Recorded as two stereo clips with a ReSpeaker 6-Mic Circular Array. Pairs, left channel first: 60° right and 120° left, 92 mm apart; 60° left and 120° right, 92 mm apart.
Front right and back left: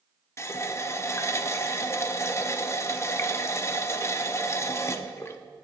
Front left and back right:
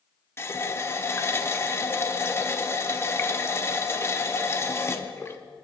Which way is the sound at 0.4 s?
Straight ahead.